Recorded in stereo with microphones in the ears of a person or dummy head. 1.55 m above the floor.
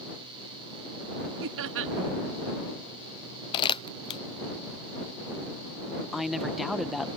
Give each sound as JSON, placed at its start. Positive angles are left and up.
{"t": 1.4, "sound": "laughter", "side_deg": -65}
{"t": 3.5, "sound": "crumpling", "side_deg": 25}
{"t": 6.1, "sound": "a woman speaking", "side_deg": 0}